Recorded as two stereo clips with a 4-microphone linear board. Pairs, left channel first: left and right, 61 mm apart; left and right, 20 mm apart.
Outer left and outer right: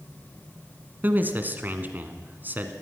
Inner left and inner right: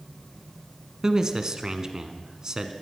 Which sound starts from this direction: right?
A man speaking, at 1.0 s.